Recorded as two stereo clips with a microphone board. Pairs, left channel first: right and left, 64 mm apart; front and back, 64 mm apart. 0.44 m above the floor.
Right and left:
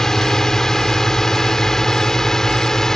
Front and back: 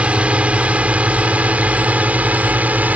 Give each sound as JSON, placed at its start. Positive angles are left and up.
{"t": 0.0, "sound": "a drone", "azimuth_deg": -160}